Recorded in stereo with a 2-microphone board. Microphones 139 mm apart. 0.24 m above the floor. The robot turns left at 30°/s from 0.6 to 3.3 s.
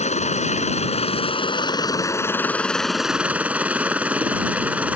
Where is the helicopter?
70° left; by 5.0 s 10° right.